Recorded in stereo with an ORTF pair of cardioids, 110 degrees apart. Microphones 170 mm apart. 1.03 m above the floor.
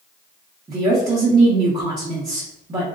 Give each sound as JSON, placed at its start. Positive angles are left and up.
{"t": 0.7, "sound": "a woman speaking", "azimuth_deg": -20, "distance_m": 1.0}